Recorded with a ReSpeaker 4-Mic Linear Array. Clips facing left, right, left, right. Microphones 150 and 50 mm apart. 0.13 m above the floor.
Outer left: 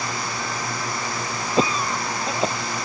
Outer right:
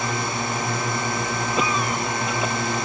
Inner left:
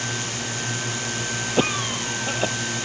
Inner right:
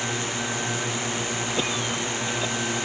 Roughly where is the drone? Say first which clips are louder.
Outer right 3 dB, inner right 1 dB; right.